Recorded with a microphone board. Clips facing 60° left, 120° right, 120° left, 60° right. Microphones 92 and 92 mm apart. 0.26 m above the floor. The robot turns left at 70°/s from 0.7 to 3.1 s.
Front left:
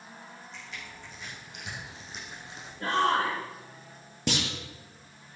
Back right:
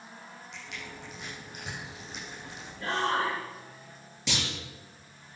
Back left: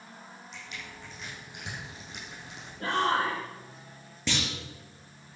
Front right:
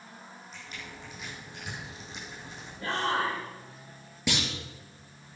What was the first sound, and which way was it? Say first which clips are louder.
Crushing: back right 3 dB, even; 110° right.